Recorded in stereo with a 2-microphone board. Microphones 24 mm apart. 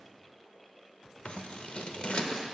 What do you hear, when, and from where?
1.2 s scissors: 55° left (ahead or behind), 0.5 m